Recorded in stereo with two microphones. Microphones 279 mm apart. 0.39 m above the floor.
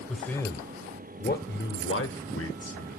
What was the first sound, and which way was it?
A man speaking, centre (ahead or behind).